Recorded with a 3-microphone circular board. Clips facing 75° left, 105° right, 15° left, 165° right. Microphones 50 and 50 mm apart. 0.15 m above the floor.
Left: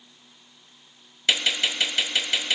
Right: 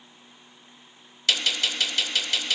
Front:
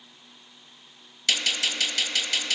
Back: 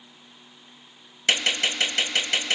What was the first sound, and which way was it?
A gunshot, 135° left.